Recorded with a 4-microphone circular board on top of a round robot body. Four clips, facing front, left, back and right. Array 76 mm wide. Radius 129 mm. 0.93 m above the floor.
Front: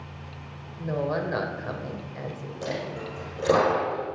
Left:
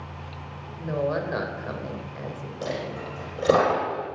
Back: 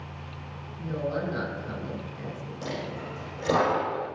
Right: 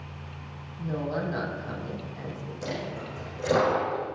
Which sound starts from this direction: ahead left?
A woman speaking, at 0.8 s.